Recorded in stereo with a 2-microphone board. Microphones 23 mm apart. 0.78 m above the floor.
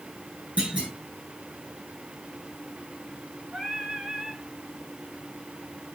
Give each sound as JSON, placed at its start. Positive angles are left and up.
{"t": 0.6, "sound": "a clunk", "side_deg": -75, "distance_m": 9.0}
{"t": 3.5, "sound": "singing", "side_deg": -80, "distance_m": 5.0}